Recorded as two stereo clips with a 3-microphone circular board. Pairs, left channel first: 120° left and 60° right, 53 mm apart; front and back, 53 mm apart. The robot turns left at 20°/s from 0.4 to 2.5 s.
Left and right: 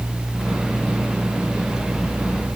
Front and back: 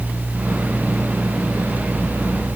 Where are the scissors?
No scissors in this recording.